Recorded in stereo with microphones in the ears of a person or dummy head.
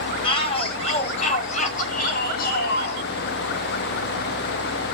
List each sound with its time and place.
0.2 s a shout: 35° left (ahead or behind), 6.5 m; by 3.0 s 65° left (ahead or behind), 5 m